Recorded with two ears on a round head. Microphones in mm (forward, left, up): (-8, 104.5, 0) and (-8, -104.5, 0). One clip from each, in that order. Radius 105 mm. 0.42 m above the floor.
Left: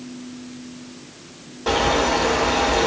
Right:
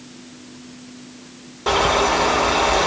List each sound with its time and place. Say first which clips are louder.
1.7 s a bird: right 2 dB; 5° right (ahead or behind), 1.6 m